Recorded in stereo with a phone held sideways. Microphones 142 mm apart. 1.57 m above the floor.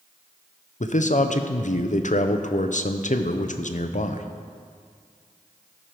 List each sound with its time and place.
0.8 s a man speaking: 60° left (ahead or behind), 0.7 m